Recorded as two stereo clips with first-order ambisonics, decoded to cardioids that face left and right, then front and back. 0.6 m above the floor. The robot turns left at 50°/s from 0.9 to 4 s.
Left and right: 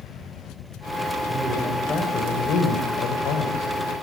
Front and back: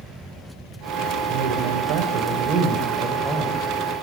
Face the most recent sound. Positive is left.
turn(degrees=55)